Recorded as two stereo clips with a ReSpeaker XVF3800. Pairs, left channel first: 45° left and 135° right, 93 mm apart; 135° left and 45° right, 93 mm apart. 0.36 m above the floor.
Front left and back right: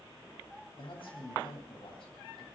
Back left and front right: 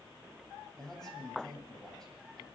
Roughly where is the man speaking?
Ahead left.